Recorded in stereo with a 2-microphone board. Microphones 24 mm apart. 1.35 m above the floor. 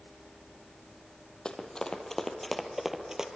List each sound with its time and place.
1.4 s running footsteps: 35° left (ahead or behind), 3 m; by 3.3 s 25° right (ahead or behind), 2.5 m